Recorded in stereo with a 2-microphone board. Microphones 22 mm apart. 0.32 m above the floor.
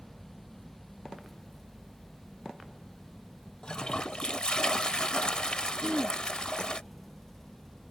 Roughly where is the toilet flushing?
Left.